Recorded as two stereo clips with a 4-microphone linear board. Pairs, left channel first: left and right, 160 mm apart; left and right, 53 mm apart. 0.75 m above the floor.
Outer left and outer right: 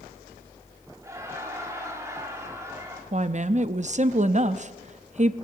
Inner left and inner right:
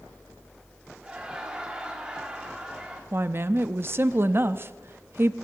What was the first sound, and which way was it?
Laughter, 20° right (ahead or behind).